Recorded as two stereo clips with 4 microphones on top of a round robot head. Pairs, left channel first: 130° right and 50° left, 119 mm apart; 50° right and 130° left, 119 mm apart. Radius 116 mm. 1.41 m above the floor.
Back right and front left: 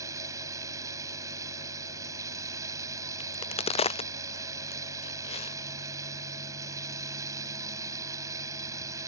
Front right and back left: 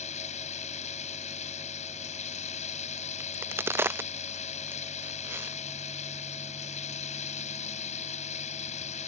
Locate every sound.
0.0 s running water: 20° right
3.2 s a crack: 160° right